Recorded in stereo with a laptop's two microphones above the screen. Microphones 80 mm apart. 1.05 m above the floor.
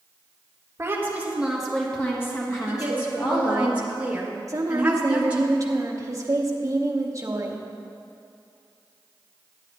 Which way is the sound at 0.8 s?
30° right (ahead or behind).